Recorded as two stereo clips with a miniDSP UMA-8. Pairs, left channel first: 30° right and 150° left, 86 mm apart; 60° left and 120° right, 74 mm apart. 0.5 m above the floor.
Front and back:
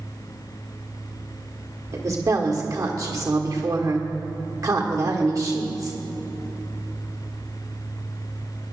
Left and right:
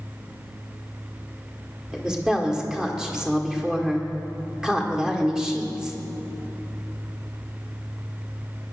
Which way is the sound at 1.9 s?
160° left.